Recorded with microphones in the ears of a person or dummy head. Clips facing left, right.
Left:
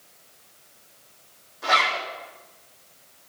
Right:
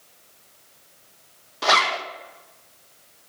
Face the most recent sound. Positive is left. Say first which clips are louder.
# right 3 dB
turn(degrees=-85)